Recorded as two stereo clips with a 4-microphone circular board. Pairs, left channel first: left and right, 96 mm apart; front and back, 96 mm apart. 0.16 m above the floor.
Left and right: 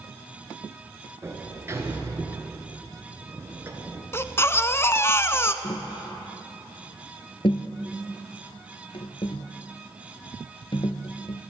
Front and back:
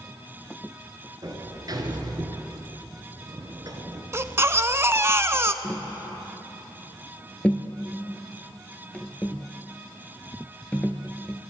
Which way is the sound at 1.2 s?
145° right.